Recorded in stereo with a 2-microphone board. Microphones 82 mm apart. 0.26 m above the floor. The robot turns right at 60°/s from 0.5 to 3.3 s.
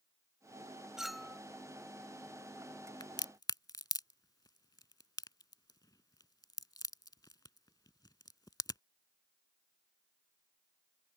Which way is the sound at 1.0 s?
5° right (ahead or behind).